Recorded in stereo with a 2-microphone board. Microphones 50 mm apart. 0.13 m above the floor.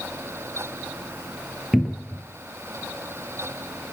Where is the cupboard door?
5° right (ahead or behind), 0.8 m.